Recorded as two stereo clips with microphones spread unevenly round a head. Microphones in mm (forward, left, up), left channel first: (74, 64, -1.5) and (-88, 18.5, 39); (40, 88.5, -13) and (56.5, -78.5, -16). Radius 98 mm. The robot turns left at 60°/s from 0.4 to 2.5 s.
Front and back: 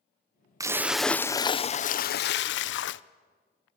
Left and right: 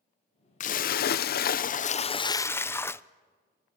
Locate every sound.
0.6 s a splash: 135° left, 0.7 m; by 3.0 s 20° left, 0.7 m